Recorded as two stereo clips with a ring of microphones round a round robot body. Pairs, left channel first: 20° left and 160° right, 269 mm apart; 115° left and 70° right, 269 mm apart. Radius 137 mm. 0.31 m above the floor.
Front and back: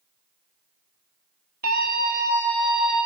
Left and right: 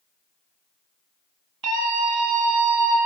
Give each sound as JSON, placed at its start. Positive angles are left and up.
{"t": 1.6, "sound": "a scream", "azimuth_deg": -100, "distance_m": 8.5}